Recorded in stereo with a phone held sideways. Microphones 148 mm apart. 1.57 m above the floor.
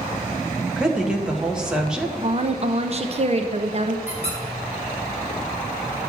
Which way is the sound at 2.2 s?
40° right (ahead or behind).